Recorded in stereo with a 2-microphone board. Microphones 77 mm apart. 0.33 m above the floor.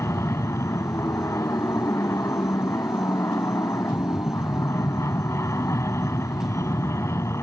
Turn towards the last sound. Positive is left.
turn(degrees=35)  # may be behind; listen again after turning